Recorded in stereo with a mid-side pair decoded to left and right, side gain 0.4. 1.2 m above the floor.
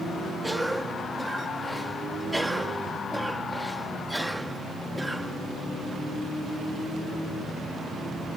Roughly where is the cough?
Ahead.